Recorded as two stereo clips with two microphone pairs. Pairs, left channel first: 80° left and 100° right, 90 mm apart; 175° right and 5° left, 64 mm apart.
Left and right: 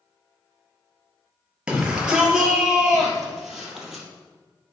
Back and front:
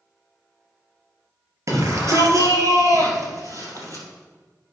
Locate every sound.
1.7 s a shout: 25° right, 2.5 m; by 4.0 s 15° right, 3.5 m